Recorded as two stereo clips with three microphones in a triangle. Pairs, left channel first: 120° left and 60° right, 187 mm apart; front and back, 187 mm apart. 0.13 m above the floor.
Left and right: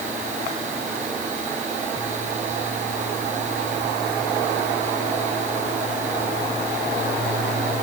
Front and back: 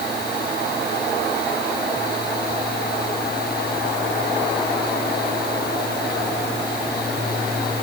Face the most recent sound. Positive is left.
No sound to turn to.